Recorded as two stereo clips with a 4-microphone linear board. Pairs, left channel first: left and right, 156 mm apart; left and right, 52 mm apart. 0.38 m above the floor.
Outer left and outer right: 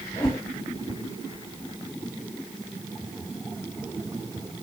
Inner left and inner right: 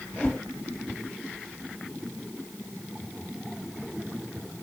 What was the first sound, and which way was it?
A whoosh, 30° left (ahead or behind).